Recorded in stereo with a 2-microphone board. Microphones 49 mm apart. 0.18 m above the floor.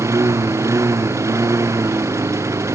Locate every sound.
0.0 s a lawn mower: 80° right